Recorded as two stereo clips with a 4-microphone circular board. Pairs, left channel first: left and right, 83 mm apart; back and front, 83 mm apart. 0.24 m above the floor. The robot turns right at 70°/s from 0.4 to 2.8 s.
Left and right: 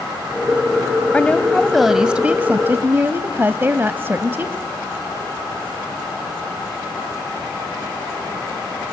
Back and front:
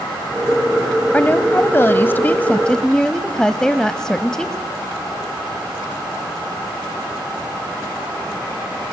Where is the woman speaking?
135° left, 1.1 m; by 4.6 s 110° right, 1.1 m.